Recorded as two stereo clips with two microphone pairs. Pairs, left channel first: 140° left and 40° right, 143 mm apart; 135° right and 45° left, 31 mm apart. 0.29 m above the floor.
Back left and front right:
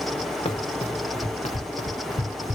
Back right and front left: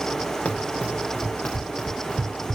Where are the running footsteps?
170° right, 2 m; by 2.5 s 160° left, 1.4 m.